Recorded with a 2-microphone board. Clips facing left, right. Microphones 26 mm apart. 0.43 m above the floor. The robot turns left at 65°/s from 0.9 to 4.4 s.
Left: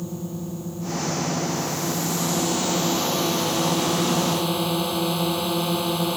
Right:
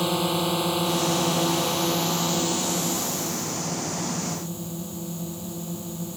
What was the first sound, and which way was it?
A drone, 70° right.